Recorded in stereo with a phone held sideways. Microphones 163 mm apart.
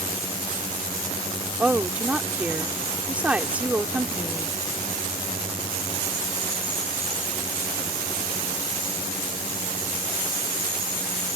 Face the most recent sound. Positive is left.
turn(degrees=-10)  # may be behind; listen again after turning